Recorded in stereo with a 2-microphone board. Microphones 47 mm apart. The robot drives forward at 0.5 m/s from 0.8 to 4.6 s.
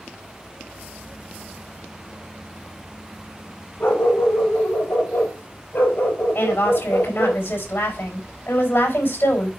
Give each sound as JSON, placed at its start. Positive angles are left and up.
{"t": 3.8, "sound": "a dog barking", "side_deg": 50, "distance_m": 4.5}
{"t": 6.3, "sound": "a woman speaking", "side_deg": 50, "distance_m": 5.0}